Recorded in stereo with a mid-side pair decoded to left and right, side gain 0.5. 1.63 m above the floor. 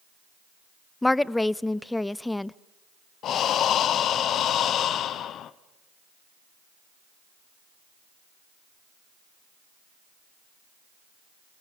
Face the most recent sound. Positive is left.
turn(degrees=60)